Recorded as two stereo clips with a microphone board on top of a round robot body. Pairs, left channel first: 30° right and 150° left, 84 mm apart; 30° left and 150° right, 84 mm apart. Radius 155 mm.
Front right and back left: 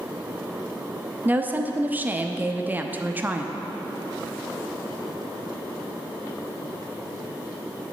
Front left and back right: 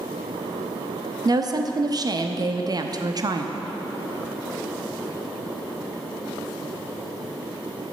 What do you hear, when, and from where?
1.2 s a woman speaking: 150° right, 0.8 m